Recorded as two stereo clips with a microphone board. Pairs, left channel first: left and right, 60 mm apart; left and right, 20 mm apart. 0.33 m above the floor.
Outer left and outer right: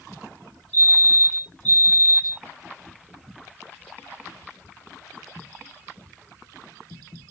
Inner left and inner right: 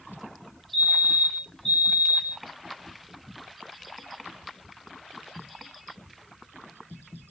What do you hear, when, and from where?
0.7 s a fire alarm: 25° left (ahead or behind), 2.5 m